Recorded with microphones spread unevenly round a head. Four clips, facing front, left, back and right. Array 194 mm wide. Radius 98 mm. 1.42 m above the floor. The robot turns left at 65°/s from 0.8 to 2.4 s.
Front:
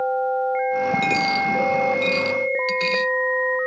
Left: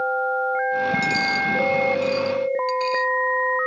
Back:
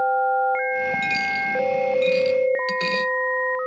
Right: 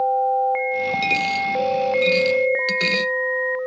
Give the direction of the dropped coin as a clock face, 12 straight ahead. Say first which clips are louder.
Right 1 dB, front 4 dB; 12 o'clock.